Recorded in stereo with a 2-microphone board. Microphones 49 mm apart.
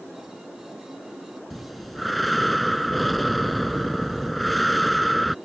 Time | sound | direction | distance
1.5 | breathing | centre (ahead or behind) | ?